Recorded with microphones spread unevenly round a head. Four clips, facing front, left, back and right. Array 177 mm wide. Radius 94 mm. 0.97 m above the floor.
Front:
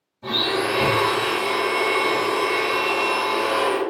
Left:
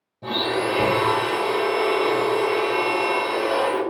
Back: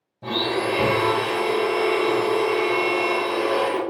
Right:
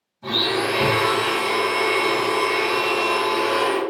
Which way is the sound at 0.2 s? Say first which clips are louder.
Even, even; 145° left.